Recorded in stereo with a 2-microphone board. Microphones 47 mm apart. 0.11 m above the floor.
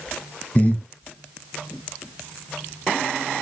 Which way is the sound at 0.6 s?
35° left (ahead or behind).